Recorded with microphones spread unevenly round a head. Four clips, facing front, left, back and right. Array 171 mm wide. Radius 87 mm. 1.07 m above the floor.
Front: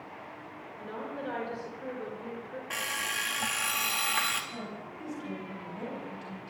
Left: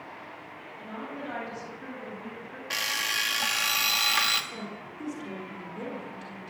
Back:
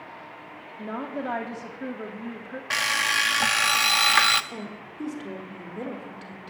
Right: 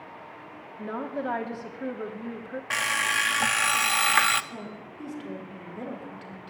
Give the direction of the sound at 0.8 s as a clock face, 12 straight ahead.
5 o'clock.